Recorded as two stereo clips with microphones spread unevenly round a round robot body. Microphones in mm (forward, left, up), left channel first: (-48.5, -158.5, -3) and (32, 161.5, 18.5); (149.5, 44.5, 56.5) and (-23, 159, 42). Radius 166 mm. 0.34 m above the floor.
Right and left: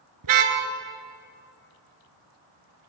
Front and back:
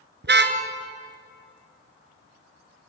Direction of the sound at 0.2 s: 110° left.